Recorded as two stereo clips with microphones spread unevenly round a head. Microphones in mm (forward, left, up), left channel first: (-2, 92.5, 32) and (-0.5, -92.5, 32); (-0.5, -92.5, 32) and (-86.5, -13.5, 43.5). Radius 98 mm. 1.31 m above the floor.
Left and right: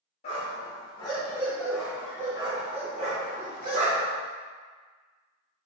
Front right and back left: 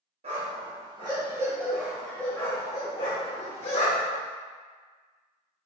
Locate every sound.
0.2 s a dog barking: 145° left, 1.2 m; by 4.2 s 55° right, 1.3 m